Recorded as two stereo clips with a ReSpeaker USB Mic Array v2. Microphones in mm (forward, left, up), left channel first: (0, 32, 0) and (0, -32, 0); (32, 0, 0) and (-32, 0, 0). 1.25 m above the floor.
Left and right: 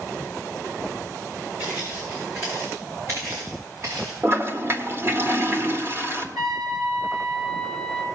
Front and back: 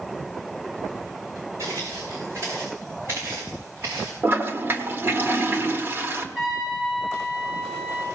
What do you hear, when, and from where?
1.6 s footsteps: 145° right, 5.5 m; by 4.1 s 125° right, 5.5 m
4.2 s a toilet flushing: 135° right, 1.4 m
6.3 s a trumpet: 95° right, 5 m